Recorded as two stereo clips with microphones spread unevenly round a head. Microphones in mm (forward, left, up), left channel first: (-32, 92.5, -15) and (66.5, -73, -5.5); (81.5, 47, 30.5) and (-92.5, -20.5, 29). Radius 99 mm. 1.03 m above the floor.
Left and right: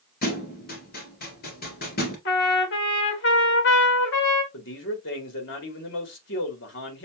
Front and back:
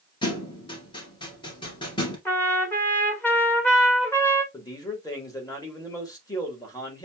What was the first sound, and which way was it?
A thud, 85° left.